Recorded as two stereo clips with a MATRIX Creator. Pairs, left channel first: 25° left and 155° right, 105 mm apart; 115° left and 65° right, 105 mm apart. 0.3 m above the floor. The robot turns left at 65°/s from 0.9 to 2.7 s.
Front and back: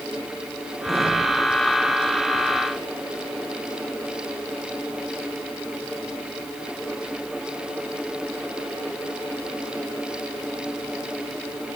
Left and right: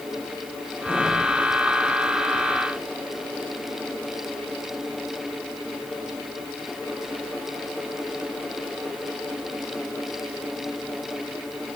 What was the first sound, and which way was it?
Only background noise.